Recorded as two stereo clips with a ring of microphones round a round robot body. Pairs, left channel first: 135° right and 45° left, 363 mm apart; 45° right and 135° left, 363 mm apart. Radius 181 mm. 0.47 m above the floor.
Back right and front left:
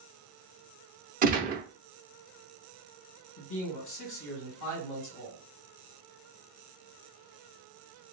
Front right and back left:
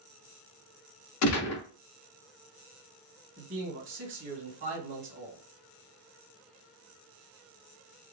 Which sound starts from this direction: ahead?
A gunshot, at 1.2 s.